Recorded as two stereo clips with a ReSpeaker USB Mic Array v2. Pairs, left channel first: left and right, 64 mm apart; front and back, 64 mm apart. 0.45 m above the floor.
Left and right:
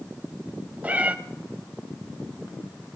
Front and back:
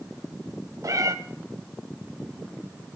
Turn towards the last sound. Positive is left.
turn(degrees=-160)